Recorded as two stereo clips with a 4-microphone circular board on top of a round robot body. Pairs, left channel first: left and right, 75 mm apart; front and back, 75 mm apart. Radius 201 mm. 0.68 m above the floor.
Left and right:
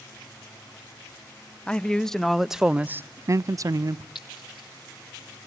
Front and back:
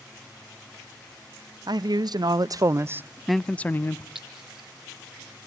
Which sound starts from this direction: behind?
A man speaking, at 1.7 s.